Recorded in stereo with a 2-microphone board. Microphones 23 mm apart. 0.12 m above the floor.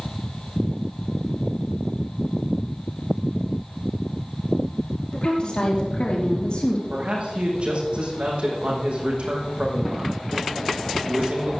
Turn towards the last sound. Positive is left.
turn(degrees=-65)  # may be behind; listen again after turning